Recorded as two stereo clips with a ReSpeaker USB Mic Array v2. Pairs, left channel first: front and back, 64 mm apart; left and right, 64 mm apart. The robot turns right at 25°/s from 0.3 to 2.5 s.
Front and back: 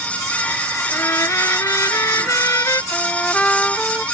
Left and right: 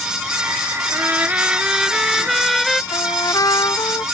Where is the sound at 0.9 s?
35° right; by 2.8 s 5° left.